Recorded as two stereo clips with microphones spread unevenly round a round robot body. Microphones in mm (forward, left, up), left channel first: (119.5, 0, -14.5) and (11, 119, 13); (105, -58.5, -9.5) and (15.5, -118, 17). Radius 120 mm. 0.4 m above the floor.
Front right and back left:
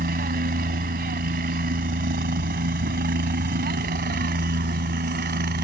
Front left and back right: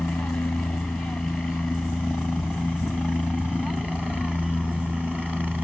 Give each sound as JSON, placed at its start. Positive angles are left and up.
{"t": 0.0, "sound": "a helicopter", "azimuth_deg": 120}